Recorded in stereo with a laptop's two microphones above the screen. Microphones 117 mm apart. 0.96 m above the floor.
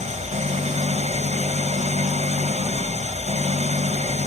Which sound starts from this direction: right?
An engine running, at 0.0 s.